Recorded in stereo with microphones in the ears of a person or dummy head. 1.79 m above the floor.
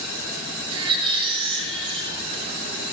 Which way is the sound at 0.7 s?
30° right (ahead or behind).